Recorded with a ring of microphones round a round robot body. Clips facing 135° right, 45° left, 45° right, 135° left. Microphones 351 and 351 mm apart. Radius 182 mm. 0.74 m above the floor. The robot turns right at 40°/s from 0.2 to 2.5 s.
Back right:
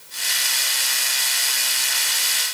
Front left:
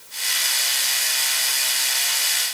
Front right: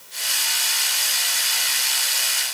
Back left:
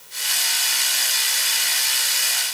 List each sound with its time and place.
Only background noise.